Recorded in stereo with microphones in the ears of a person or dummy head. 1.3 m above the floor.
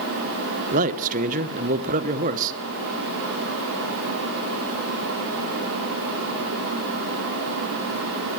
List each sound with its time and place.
0.7 s a man speaking: 40° right (ahead or behind), 0.8 m